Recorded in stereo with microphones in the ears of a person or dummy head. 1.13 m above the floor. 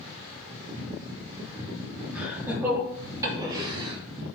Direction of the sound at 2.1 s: 5° right (ahead or behind).